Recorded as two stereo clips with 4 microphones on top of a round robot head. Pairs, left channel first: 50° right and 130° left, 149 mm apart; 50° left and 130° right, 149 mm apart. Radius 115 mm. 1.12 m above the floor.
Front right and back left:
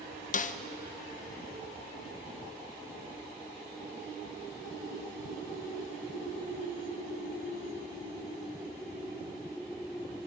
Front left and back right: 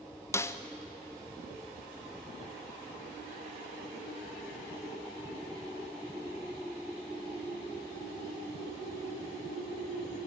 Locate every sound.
0.3 s a snare drum: 20° right, 0.9 m